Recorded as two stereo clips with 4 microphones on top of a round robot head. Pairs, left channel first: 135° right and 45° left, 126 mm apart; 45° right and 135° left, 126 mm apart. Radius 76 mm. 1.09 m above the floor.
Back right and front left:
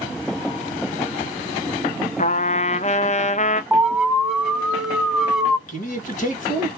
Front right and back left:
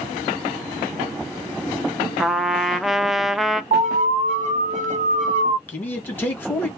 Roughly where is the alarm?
Behind left.